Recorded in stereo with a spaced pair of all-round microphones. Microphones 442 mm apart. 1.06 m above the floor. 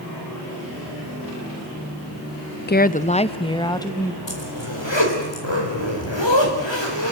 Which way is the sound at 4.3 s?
75° left (ahead or behind).